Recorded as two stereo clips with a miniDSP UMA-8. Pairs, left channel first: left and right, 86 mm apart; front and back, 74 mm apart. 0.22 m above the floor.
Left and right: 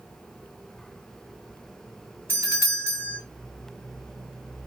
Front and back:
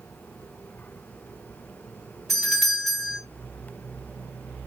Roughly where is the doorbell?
Right.